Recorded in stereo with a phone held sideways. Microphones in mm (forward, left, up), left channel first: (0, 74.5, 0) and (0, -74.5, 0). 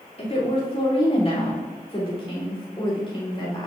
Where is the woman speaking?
45° left (ahead or behind), 5 m; by 3.7 s 35° left (ahead or behind), 7 m.